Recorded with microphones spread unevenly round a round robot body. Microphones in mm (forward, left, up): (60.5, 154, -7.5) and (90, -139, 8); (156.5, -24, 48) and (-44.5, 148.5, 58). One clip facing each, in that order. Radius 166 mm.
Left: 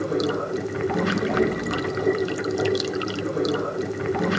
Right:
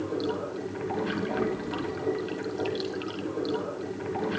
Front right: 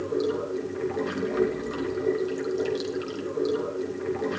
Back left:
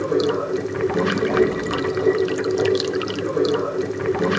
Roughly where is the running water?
Behind left.